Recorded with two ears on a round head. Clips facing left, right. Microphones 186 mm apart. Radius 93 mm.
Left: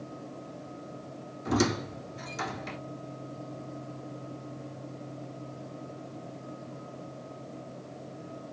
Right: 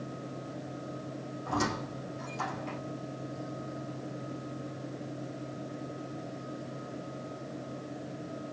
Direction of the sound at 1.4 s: 80° left.